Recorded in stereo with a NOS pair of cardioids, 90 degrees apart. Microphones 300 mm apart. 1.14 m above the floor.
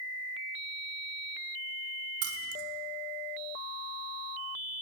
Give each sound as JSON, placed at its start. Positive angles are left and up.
{"t": 2.2, "sound": "keys jangling", "azimuth_deg": -55, "distance_m": 0.6}